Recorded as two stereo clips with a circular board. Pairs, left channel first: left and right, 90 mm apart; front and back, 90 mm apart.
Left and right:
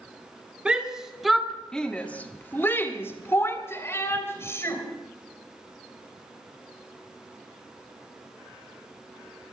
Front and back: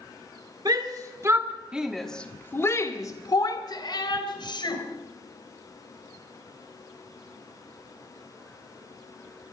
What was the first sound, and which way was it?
A shout, 165° right.